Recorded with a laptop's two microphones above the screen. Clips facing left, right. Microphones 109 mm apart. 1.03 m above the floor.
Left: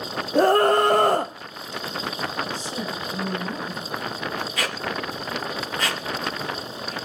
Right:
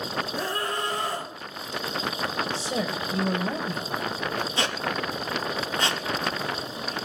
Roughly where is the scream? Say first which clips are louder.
Left 17 dB; left.